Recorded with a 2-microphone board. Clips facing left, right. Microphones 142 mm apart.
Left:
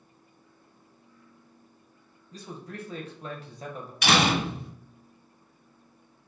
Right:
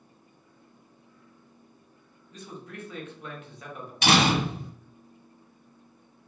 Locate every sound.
2.3 s a man speaking: 35° left (ahead or behind), 0.7 m
4.0 s a door slam: 35° right (ahead or behind), 1.3 m